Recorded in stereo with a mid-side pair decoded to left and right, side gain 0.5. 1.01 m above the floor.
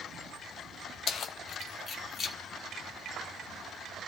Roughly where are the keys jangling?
Ahead left.